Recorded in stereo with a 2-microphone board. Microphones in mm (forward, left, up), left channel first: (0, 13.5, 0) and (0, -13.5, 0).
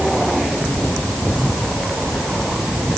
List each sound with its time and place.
Only background noise.